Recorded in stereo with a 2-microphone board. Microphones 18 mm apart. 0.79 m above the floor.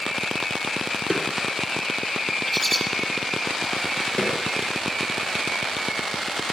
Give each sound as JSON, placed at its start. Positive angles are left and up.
{"t": 1.1, "sound": "a snare drum", "side_deg": 0, "distance_m": 3.0}
{"t": 2.5, "sound": "a bird", "side_deg": 5, "distance_m": 9.5}
{"t": 4.2, "sound": "a snare drum", "side_deg": 80, "distance_m": 8.0}